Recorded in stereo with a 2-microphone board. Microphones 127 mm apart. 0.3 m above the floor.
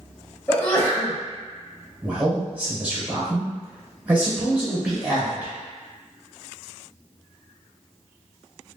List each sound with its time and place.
0.5 s a sneeze: 15° left (ahead or behind), 0.9 m
2.0 s a man speaking: 15° right (ahead or behind), 1.1 m